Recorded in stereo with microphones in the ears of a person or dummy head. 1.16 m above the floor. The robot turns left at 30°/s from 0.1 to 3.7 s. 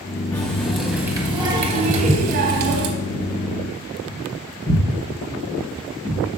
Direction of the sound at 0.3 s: 10° left.